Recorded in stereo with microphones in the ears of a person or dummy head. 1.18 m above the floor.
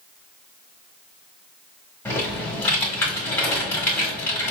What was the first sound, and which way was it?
Typing on a keyboard, 5° left (ahead or behind).